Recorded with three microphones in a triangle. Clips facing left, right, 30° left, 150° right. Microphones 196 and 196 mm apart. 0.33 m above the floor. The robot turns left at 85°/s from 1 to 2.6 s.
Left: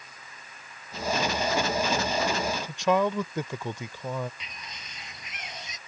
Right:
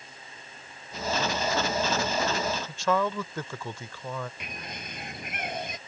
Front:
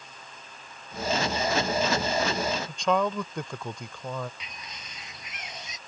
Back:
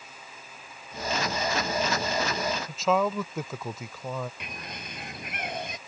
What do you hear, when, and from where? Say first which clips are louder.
2.7 s a man speaking: left 4 dB, back 2 dB; 130° left
4.4 s a bird: right 6 dB, back 5 dB; 120° right